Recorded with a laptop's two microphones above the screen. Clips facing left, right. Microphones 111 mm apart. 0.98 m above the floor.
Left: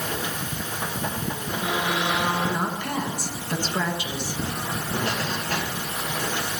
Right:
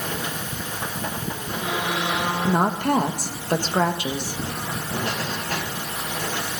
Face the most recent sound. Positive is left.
turn(degrees=-50)  # may be behind; listen again after turning